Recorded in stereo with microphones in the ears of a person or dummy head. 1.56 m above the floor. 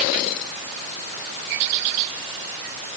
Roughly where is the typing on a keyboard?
No typing on a keyboard in this recording.